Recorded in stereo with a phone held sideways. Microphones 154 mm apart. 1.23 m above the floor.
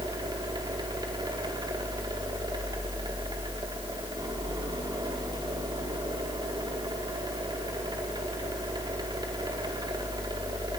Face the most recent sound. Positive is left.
turn(degrees=-30)  # may be behind; listen again after turning